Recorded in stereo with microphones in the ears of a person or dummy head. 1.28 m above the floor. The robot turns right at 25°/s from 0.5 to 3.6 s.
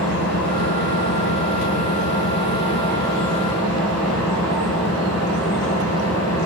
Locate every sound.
0.0 s an engine running: 105° left, 3.5 m; by 6.5 s straight behind, 3.5 m